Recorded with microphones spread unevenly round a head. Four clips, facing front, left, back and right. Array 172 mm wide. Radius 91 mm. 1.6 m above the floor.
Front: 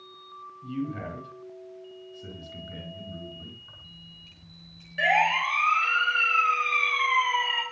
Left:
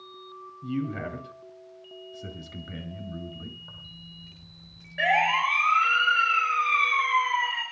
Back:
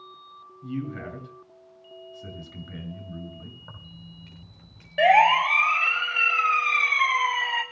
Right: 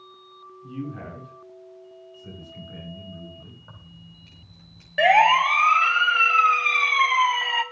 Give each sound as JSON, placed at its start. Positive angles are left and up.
{"t": 0.6, "sound": "a man speaking", "azimuth_deg": 110, "distance_m": 9.0}
{"t": 3.6, "sound": "keys jangling", "azimuth_deg": -175, "distance_m": 4.5}
{"t": 5.0, "sound": "a siren", "azimuth_deg": -135, "distance_m": 3.0}